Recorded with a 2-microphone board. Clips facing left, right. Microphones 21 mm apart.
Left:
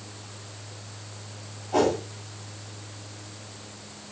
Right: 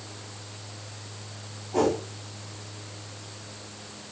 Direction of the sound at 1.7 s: 75° left (ahead or behind).